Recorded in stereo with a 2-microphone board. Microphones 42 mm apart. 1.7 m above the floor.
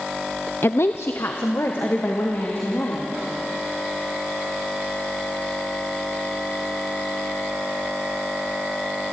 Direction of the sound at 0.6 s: 65° left (ahead or behind).